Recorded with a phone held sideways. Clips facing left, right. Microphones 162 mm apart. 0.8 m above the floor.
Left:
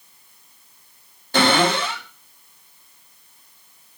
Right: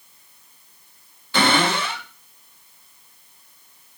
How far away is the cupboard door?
About 1.5 m.